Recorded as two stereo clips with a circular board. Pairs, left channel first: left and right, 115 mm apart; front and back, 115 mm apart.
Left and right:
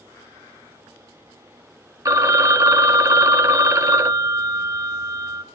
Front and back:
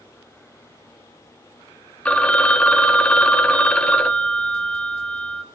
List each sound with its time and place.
2.0 s a phone ringing: 70° right, 0.6 m